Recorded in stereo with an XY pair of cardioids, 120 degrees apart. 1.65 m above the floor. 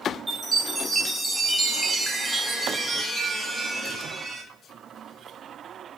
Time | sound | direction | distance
0.3 | a chime | 5° right | 0.9 m